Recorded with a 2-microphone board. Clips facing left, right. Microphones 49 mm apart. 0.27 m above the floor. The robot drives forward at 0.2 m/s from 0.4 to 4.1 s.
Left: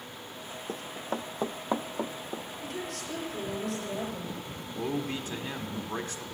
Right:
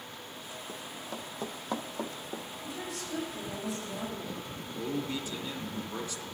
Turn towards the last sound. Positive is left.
turn(degrees=55)  # may be behind; listen again after turning